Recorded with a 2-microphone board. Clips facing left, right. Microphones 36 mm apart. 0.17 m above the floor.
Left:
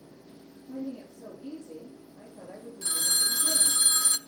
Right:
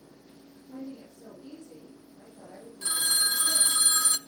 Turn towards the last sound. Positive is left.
turn(degrees=-20)  # may be behind; listen again after turning